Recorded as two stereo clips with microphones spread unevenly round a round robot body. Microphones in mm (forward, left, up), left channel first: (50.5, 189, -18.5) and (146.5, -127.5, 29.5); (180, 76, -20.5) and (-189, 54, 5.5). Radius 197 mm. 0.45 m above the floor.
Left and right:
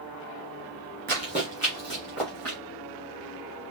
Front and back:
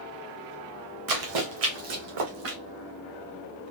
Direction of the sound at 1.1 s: 140° right.